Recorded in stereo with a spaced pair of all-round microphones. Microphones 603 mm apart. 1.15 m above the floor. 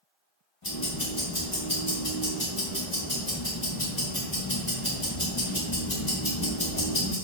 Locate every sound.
0.6 s ticking: 50° left (ahead or behind), 1.2 m